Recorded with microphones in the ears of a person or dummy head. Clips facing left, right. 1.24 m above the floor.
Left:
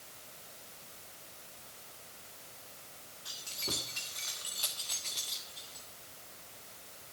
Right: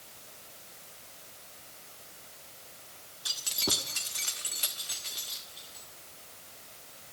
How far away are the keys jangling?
About 1.8 m.